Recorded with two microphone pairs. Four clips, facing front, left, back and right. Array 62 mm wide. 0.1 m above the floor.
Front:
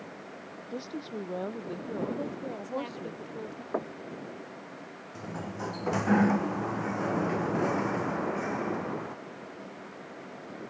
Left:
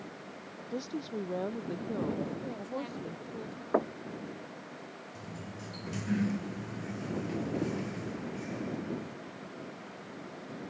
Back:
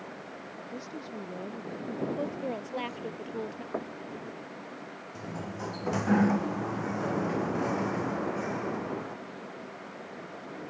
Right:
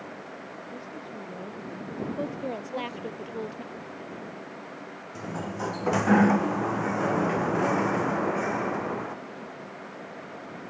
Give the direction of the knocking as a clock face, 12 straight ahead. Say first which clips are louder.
Left 10 dB, front 4 dB; 10 o'clock.